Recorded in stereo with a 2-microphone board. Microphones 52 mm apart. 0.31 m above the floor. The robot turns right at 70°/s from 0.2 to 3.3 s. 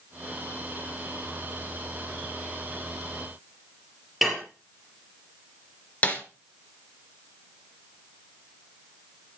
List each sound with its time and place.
4.2 s dishes clattering: 5° right (ahead or behind), 4.5 m
6.0 s a snare drum: 25° left (ahead or behind), 2.5 m